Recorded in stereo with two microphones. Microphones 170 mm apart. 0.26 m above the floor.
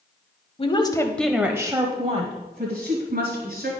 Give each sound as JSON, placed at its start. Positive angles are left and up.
{"t": 0.6, "sound": "a woman speaking", "side_deg": 35, "distance_m": 1.1}